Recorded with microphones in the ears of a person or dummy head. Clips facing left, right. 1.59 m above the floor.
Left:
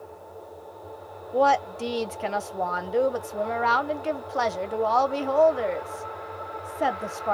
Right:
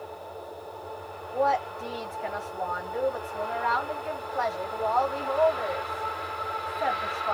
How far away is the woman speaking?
About 0.7 m.